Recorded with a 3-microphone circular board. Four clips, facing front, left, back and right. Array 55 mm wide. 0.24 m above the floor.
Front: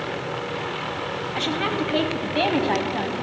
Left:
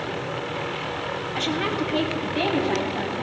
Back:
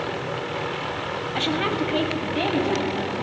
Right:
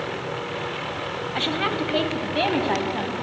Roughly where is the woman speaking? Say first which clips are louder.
Right 1 dB, back 1 dB; behind right.